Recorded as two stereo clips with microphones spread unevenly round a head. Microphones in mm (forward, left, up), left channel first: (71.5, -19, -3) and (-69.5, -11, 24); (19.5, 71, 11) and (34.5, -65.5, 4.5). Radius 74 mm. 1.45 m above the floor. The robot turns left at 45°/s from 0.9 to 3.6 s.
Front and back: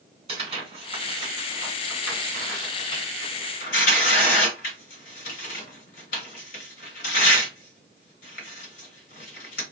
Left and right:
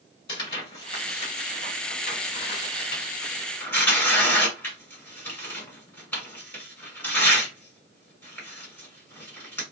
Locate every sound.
0.3 s tearing paper: 145° left, 1.8 m; by 9.6 s 25° left, 1.8 m